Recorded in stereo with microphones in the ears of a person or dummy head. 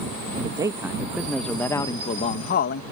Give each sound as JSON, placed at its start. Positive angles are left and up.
{"t": 0.3, "sound": "a man speaking", "side_deg": -25}